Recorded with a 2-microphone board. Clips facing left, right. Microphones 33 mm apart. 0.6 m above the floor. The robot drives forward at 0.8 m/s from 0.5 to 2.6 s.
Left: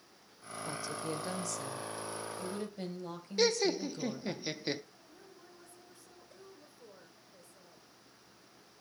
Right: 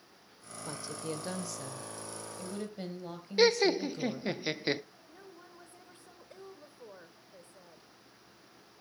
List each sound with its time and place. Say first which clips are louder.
0.7 s a woman speaking: left 1 dB; 15° right (ahead or behind), 2.5 m; by 4.4 s 10° right (ahead or behind), 4 m
3.4 s laughter: right 4 dB; 30° right (ahead or behind), 0.6 m
5.1 s a woman speaking: right 3 dB; 45° right (ahead or behind), 3 m